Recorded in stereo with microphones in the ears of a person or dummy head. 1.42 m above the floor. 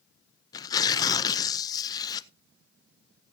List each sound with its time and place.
0.5 s tearing paper: 25° left (ahead or behind), 0.7 m